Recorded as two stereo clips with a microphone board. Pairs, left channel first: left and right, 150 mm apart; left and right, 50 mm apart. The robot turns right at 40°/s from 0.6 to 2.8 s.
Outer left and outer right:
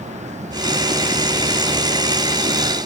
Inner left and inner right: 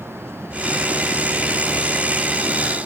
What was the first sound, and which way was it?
Only background noise.